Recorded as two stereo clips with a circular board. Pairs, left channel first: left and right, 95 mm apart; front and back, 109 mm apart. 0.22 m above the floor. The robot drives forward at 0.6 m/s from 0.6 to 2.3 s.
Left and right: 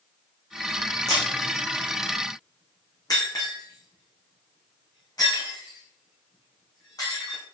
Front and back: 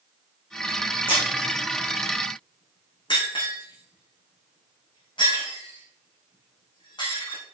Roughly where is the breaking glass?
Ahead left.